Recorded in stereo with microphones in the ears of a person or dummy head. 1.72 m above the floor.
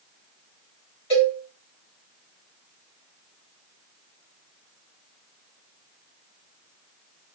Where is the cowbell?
25° left (ahead or behind), 1.5 m.